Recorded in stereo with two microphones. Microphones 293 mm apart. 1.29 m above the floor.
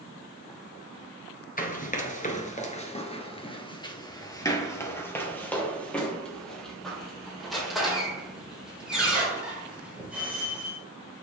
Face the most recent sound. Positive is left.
turn(degrees=-5)  # may be behind; listen again after turning